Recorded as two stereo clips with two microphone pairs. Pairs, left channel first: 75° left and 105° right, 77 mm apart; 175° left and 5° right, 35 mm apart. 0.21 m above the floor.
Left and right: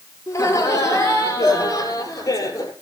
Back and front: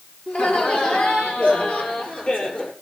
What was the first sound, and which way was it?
Laughter, 125° left.